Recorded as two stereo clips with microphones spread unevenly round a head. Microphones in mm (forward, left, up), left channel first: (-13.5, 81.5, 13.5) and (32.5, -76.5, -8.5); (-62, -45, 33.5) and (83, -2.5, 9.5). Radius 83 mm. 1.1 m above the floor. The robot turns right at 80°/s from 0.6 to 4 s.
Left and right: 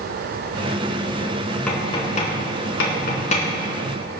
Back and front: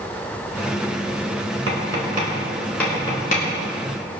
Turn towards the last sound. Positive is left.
turn(degrees=-150)